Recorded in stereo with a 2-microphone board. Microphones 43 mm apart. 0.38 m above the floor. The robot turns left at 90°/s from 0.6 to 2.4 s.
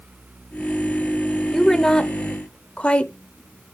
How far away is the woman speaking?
About 0.9 m.